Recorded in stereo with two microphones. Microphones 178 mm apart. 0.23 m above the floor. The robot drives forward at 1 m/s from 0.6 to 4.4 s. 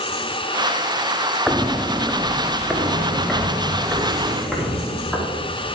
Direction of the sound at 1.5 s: 5° right (ahead or behind).